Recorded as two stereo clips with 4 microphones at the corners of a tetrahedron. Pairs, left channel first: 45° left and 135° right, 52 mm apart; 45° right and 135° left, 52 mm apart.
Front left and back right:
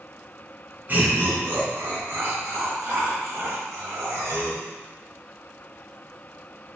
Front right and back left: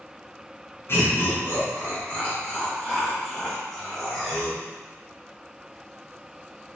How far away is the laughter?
About 1.9 m.